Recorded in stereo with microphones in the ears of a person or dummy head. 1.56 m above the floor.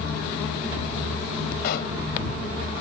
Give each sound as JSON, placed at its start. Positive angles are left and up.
{"t": 1.6, "sound": "a pop", "side_deg": 70}